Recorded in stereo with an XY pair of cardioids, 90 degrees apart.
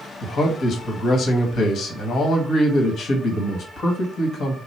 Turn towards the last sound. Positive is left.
turn(degrees=60)